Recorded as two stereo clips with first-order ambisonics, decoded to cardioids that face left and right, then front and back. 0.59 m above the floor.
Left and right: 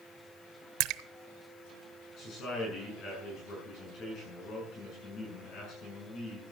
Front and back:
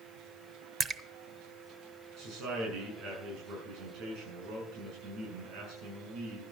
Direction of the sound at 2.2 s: 140° left.